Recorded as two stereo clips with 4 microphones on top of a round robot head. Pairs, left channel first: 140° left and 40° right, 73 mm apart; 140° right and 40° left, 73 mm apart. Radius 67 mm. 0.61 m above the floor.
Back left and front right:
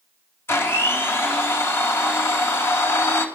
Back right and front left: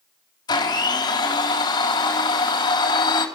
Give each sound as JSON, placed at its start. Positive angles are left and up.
{"t": 0.5, "sound": "a blender", "azimuth_deg": -165, "distance_m": 4.0}